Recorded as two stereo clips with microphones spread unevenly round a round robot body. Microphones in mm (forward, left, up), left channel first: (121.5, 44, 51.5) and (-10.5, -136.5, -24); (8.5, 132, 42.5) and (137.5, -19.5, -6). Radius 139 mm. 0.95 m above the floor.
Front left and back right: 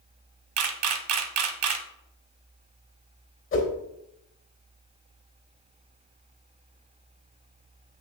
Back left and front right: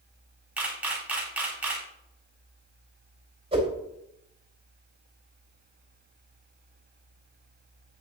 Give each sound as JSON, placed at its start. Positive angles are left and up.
{"t": 0.6, "sound": "a camera shutter", "azimuth_deg": -145, "distance_m": 1.0}
{"t": 3.5, "sound": "a whoosh", "azimuth_deg": 15, "distance_m": 3.0}